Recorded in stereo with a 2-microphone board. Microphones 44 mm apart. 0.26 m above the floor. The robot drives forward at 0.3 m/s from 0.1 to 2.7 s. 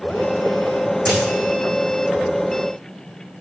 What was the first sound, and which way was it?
A dropped coin, 15° left (ahead or behind).